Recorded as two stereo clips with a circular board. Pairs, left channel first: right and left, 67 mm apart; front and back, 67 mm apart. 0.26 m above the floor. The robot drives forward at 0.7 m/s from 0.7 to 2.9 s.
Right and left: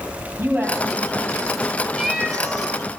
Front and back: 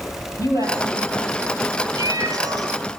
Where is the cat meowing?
175° left, 2.5 m.